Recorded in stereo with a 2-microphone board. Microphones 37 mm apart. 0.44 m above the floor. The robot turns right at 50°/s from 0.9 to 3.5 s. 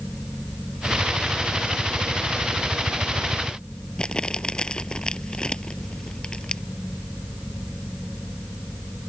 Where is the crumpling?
20° left (ahead or behind).